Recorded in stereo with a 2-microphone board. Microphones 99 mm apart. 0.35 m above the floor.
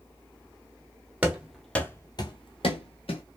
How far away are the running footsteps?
About 0.8 m.